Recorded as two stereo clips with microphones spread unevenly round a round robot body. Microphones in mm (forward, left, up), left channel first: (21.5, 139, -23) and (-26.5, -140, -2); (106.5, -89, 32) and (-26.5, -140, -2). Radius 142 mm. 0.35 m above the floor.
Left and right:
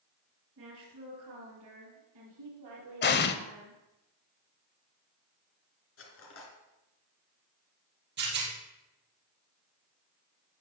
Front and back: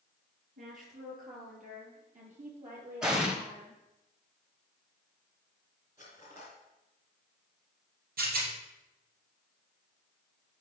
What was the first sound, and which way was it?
A woman speaking, 145° right.